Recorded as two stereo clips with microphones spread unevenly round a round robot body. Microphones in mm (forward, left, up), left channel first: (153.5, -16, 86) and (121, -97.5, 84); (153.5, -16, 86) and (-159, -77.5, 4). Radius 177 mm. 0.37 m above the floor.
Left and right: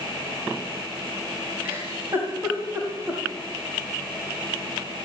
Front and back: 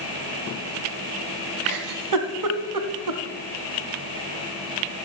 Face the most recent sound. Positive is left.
turn(degrees=175)